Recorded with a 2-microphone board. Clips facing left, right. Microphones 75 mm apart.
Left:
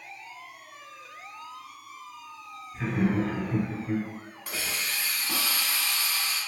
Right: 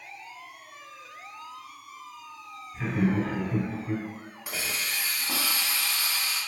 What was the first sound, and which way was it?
Laughter, 5° left (ahead or behind).